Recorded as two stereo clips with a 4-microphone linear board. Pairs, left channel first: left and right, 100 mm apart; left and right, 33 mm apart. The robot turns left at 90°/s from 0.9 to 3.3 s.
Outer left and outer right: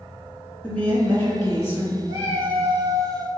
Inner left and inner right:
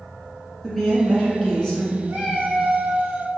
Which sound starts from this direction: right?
A cat meowing, at 2.1 s.